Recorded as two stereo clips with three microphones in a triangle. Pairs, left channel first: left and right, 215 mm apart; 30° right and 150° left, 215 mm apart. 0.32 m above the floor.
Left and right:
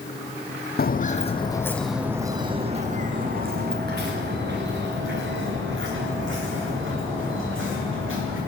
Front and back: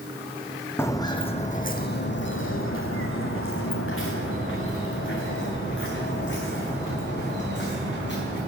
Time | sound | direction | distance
0.8 | footsteps | 50° left | 0.8 m